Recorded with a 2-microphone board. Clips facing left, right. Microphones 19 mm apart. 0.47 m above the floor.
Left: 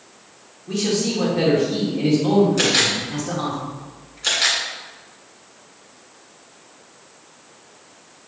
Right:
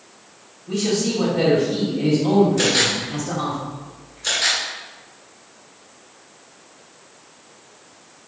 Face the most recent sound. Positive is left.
turn(degrees=40)  # may be behind; listen again after turning